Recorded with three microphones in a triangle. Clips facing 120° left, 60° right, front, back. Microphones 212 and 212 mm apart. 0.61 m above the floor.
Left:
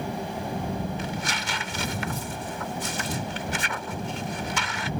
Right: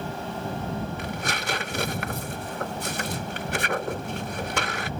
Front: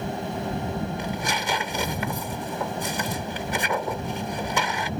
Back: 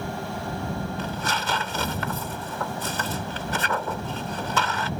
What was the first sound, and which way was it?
Tearing paper, 75° right.